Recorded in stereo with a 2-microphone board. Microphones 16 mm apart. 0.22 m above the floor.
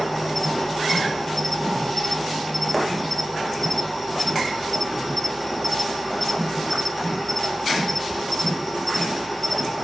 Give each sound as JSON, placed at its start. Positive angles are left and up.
{"t": 0.0, "sound": "an insect", "side_deg": 15, "distance_m": 1.3}